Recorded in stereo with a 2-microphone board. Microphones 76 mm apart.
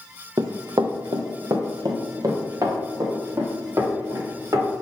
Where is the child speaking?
I don't hear a child speaking.